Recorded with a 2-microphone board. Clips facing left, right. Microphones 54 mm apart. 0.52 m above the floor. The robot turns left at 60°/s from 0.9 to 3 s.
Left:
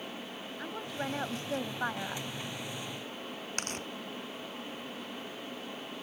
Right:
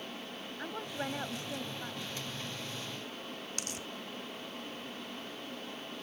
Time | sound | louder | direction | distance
0.6 | a woman speaking | left 1 dB | straight behind | ?
3.6 | tearing paper | left 4 dB | 45° left (ahead or behind) | ?